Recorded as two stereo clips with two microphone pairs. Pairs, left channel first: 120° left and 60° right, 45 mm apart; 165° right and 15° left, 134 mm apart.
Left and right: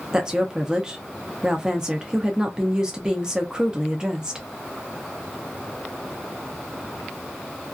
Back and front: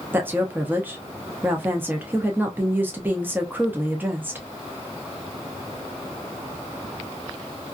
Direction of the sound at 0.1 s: 30° right.